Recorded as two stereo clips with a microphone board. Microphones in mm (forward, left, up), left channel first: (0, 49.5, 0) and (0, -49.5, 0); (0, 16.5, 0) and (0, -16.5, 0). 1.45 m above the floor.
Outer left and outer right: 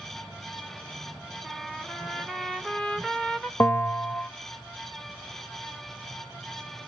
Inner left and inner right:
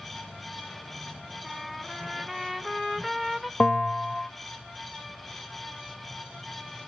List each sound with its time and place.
1.4 s a trumpet: 5° left (ahead or behind), 1.0 m
3.6 s a bell: 25° left (ahead or behind), 0.6 m